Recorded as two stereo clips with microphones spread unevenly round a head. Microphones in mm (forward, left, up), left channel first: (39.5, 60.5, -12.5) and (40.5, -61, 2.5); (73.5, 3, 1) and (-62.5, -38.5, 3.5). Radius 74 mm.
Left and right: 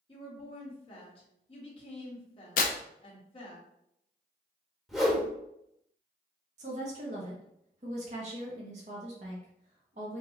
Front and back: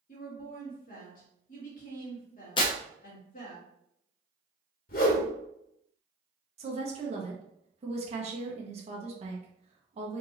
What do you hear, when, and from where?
0.1 s a woman speaking: 55° left, 2 m
2.6 s tearing paper: 80° left, 0.6 m
4.9 s a whoosh: straight ahead, 1.3 m
6.6 s a woman speaking: 125° right, 1.2 m